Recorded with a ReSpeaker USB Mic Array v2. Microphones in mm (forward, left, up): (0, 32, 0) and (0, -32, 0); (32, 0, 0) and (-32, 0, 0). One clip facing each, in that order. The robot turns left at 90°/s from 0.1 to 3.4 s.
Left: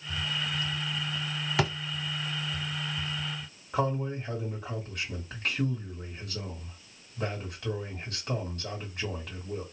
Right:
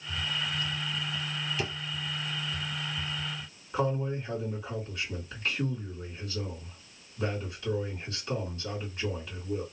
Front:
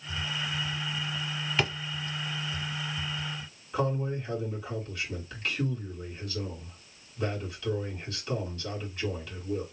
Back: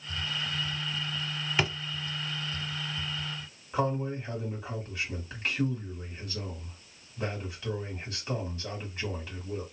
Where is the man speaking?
105° left, 2 m.